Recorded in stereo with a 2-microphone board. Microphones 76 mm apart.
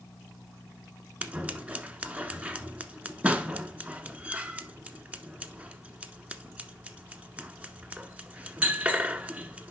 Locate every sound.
1.2 s scissors: 20° right (ahead or behind), 0.6 m